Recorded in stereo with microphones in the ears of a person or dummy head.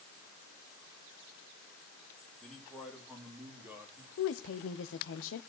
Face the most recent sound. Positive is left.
turn(degrees=75)  # may be behind; listen again after turning